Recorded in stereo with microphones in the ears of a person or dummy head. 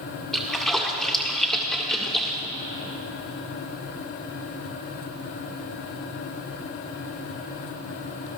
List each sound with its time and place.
0.3 s a splash: 5° left (ahead or behind), 1.7 m